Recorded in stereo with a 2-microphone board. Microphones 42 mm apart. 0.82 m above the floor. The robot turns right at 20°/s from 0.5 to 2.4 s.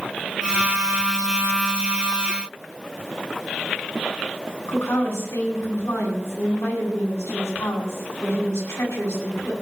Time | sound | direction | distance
4.7 | a woman speaking | 80° left | 8.5 m